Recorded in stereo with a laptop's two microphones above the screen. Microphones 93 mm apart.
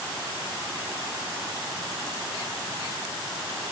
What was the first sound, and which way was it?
Only background noise.